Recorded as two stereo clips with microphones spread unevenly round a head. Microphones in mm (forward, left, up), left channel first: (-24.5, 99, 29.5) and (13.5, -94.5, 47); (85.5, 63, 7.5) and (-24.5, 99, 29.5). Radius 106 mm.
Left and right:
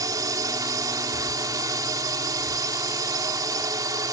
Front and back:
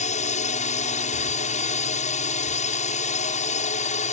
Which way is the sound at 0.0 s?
5° right.